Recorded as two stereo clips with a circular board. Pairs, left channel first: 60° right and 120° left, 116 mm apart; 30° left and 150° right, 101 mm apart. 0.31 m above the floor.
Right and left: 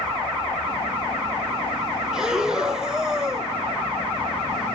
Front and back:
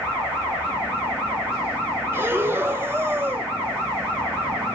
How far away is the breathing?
About 0.9 m.